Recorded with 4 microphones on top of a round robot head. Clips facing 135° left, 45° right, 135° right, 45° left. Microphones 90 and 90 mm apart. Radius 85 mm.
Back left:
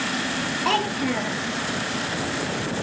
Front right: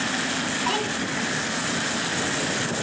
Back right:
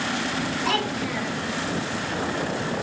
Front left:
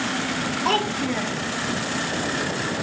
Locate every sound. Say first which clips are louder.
0.7 s a child speaking: back left 6 dB, front left 5 dB; 95° left, 1.0 m